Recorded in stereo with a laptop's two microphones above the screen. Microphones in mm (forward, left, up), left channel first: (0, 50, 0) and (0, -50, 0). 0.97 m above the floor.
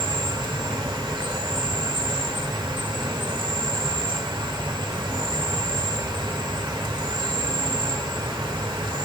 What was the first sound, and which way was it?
An insect, 50° right (ahead or behind).